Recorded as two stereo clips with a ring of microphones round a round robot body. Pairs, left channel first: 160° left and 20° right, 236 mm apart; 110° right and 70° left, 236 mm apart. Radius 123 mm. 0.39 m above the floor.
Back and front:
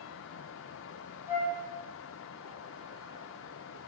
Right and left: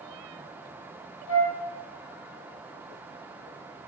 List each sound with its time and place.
1.3 s a flute: 100° right, 6 m